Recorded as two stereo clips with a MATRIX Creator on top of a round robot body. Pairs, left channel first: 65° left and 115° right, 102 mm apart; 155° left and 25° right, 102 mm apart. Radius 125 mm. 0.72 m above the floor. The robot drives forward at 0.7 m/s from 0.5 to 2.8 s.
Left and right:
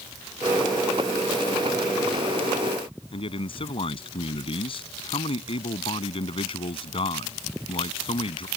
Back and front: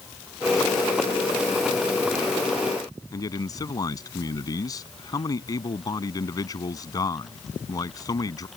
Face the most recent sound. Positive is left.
turn(degrees=105)